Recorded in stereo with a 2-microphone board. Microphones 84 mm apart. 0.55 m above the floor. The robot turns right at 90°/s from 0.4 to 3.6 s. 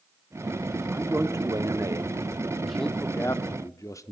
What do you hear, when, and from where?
0.9 s a man speaking: 160° right, 0.9 m; by 4.1 s 85° left, 0.9 m